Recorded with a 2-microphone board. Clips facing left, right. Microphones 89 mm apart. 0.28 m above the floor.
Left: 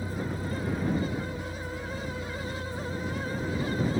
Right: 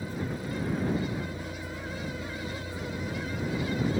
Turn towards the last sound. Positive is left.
turn(degrees=-35)  # may be behind; listen again after turning